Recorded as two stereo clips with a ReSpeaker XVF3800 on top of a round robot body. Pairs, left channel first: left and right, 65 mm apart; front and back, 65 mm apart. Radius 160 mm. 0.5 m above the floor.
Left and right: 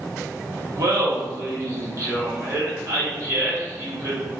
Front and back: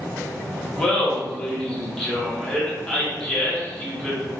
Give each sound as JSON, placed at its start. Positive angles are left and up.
{"t": 0.8, "sound": "laughter", "azimuth_deg": -75, "distance_m": 1.8}